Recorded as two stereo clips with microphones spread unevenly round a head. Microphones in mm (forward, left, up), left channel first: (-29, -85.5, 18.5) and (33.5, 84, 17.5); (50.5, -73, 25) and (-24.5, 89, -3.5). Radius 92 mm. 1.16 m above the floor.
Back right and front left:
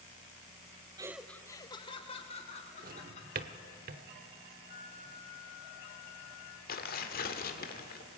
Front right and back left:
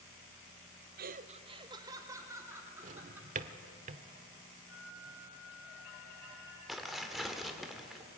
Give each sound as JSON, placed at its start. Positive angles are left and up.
{"t": 1.0, "sound": "laughter", "azimuth_deg": 135, "distance_m": 0.7}
{"t": 2.8, "sound": "a drawer", "azimuth_deg": 75, "distance_m": 0.9}
{"t": 4.7, "sound": "a flute", "azimuth_deg": -160, "distance_m": 1.9}
{"t": 6.7, "sound": "tearing paper", "azimuth_deg": -155, "distance_m": 1.6}